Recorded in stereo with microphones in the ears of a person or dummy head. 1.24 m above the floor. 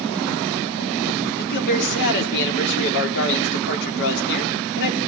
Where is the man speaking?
60° left (ahead or behind), 4 m.